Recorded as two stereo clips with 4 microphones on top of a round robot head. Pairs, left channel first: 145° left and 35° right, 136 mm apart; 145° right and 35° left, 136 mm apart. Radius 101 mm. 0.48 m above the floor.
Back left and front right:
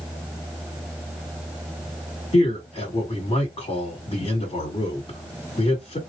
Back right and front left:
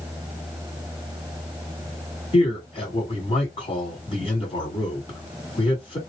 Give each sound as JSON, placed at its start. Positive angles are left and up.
{"t": 2.3, "sound": "a man speaking", "azimuth_deg": 180, "distance_m": 2.0}